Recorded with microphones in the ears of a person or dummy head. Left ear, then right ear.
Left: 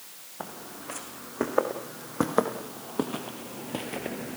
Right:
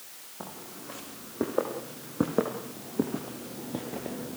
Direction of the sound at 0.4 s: 40° left (ahead or behind).